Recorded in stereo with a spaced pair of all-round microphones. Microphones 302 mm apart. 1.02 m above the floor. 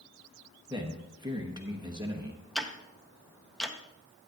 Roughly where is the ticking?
Centre.